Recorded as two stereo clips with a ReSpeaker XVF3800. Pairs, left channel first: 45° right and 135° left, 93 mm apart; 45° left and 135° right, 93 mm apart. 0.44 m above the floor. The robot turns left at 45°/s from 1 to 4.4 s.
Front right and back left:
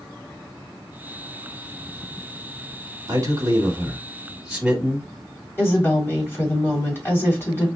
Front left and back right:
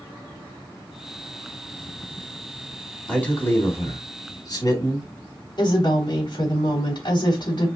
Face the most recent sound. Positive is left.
turn(degrees=15)